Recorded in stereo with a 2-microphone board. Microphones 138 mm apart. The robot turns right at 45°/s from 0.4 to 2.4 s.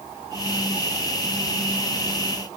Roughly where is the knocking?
I don't hear knocking.